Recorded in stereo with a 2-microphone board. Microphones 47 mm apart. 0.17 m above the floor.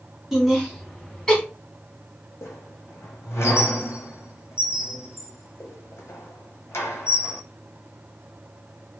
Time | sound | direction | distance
0.3 | laughter | 5° right (ahead or behind) | 1.7 m
2.4 | a squeak | 75° left (ahead or behind) | 1.2 m